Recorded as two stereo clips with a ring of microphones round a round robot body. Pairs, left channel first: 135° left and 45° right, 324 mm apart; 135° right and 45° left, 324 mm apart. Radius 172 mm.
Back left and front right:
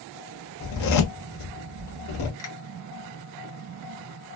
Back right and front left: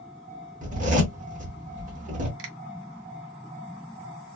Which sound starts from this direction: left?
A zipper, at 0.6 s.